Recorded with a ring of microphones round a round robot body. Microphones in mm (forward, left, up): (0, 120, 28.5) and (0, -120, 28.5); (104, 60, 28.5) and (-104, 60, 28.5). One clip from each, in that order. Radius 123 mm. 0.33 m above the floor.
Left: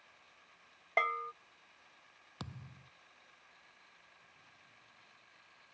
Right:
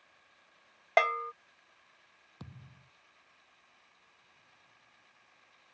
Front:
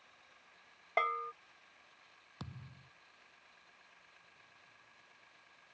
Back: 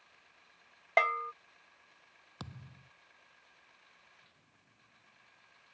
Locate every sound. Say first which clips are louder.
1.0 s a bell: right 6 dB, back 5 dB; 130° right
2.4 s a thud: left 5 dB, back 3 dB; 130° left